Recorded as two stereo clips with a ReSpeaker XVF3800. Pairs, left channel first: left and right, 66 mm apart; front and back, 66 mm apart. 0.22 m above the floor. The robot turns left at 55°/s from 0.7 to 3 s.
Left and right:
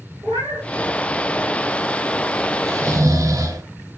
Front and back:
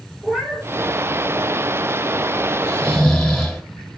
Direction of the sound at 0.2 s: 95° right.